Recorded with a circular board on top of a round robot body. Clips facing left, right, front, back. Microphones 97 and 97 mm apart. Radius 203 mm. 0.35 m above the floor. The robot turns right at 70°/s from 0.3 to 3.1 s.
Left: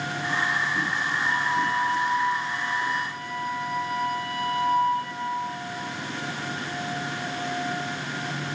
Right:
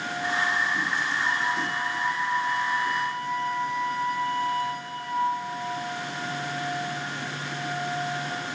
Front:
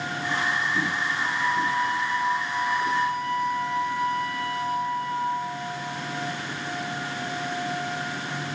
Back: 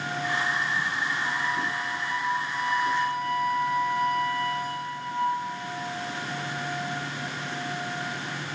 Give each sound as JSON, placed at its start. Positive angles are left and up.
{"t": 1.2, "sound": "a flute", "azimuth_deg": -70, "distance_m": 4.5}